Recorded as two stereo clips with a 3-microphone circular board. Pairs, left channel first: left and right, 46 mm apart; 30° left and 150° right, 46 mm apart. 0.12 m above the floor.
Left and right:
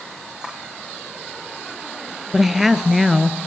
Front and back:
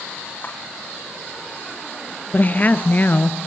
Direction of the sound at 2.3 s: 5° right.